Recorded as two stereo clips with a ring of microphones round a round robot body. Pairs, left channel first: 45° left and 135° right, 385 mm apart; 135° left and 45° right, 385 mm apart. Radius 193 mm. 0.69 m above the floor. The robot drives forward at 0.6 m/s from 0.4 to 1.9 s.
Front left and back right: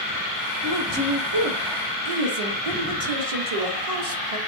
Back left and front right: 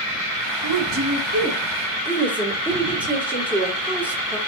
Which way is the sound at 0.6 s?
85° right.